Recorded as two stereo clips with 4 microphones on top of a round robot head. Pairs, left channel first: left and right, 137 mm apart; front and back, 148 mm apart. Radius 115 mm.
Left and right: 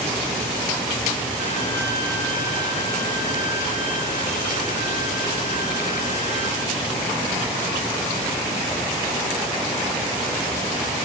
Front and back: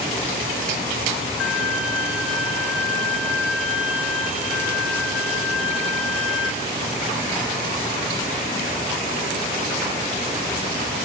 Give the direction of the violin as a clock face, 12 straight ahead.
9 o'clock.